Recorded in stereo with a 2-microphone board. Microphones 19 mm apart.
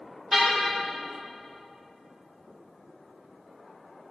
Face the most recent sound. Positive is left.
turn(degrees=-20)  # may be behind; listen again after turning